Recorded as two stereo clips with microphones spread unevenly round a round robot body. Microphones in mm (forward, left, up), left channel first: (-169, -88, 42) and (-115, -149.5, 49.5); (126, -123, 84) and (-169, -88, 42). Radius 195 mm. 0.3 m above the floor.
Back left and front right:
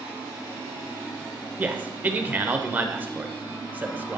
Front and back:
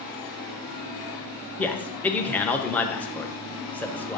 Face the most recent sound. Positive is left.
turn(degrees=-105)